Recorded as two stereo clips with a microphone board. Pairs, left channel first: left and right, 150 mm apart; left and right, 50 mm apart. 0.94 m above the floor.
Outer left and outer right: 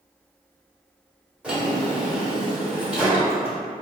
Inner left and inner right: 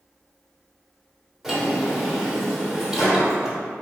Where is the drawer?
5° right (ahead or behind), 1.3 m.